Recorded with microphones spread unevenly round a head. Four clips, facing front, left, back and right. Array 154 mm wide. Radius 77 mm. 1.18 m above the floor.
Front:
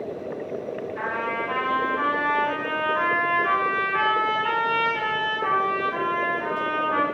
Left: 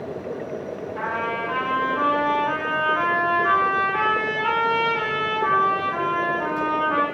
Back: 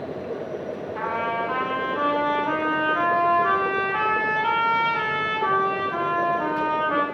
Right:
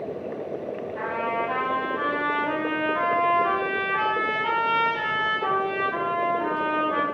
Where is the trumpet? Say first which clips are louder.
Left 1 dB, back 3 dB; 175° right, 1.2 m.